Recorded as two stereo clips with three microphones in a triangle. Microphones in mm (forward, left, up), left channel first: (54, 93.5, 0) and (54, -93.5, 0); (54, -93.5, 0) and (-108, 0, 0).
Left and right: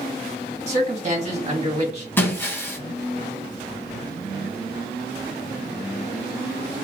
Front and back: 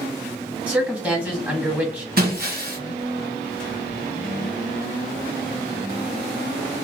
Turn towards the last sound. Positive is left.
turn(degrees=165)